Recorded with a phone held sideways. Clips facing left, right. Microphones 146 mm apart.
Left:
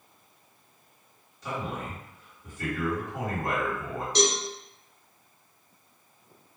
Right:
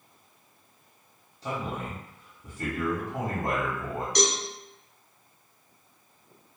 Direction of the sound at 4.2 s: 25° left (ahead or behind).